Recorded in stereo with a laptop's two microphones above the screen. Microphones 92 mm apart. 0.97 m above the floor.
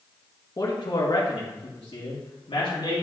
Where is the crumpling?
I don't hear crumpling.